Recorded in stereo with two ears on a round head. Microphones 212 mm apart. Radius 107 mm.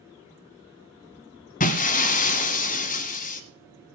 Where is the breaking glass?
35° left (ahead or behind), 1.2 m.